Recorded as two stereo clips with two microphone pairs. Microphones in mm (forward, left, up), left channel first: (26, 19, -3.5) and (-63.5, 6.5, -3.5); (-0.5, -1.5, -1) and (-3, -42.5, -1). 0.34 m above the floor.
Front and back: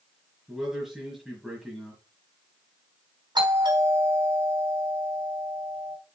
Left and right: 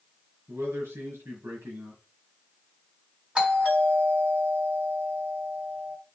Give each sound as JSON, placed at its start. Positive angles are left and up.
{"t": 0.5, "sound": "a man speaking", "azimuth_deg": -85, "distance_m": 4.0}
{"t": 3.4, "sound": "a doorbell", "azimuth_deg": -155, "distance_m": 3.5}